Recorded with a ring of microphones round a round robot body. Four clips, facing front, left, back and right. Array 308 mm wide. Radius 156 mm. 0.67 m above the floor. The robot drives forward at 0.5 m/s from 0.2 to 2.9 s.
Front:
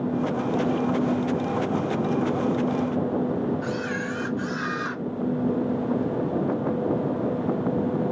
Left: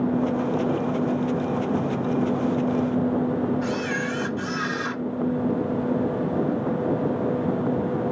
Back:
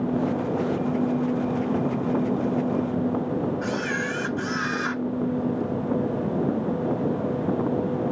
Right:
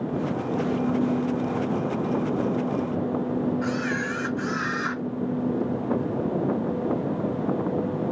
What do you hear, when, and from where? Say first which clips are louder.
3.6 s a camera shutter: left 1 dB, back 1 dB; 165° left, 2.5 m